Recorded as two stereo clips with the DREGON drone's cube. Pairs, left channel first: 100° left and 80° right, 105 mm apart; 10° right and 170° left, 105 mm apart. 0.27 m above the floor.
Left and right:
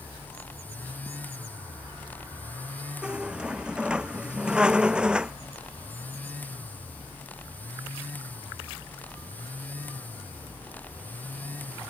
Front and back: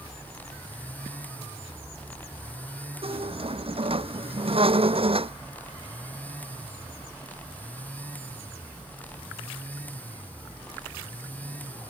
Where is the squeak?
160° right.